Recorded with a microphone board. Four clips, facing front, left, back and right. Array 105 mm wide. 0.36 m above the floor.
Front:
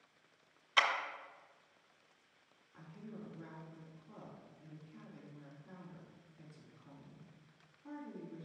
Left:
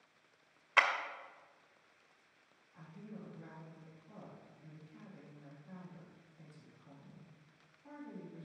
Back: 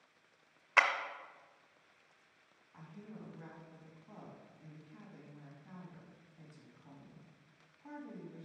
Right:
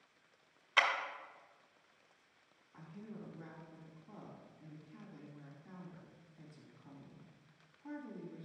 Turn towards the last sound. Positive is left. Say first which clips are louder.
# right 1 dB, front 1 dB
turn(degrees=-150)